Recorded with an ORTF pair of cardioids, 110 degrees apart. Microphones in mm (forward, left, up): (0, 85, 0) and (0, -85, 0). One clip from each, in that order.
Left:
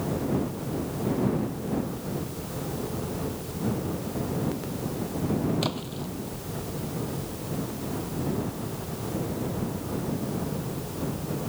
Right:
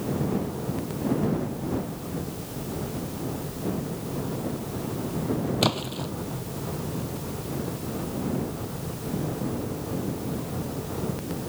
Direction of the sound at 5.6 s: 40° right.